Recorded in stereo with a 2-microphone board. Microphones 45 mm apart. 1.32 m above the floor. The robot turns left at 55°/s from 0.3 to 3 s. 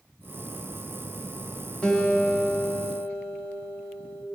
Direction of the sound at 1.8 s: 20° left.